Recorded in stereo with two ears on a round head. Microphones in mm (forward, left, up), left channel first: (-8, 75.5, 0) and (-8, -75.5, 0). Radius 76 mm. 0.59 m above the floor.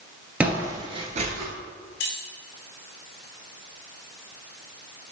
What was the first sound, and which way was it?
Footsteps, 5° right (ahead or behind).